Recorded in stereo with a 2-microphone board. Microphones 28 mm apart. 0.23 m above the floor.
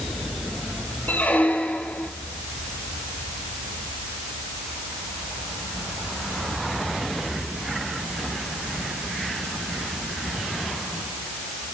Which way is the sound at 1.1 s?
85° left.